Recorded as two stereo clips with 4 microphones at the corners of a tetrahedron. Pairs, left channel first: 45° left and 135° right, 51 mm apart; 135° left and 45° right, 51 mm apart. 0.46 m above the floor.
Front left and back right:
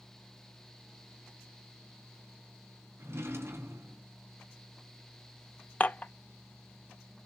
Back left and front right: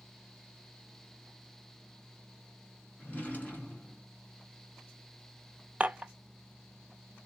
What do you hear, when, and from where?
3.0 s a drawer: 165° right, 1.4 m
5.8 s dishes clattering: 5° left, 0.5 m